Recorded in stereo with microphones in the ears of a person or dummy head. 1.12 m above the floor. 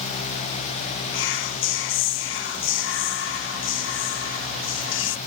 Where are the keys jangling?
I don't hear keys jangling.